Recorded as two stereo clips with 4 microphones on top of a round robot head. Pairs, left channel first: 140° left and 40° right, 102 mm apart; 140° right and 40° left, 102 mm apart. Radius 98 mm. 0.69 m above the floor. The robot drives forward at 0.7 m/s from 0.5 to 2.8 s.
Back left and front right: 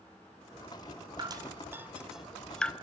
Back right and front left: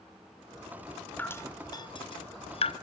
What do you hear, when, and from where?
1.2 s dripping: 70° right, 1.0 m; by 2.7 s 145° right, 1.3 m